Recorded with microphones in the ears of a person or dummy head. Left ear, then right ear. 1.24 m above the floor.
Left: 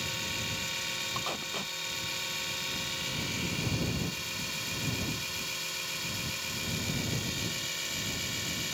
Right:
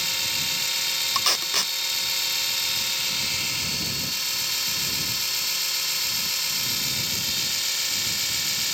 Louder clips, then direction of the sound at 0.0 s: Right 9 dB; 50° right (ahead or behind).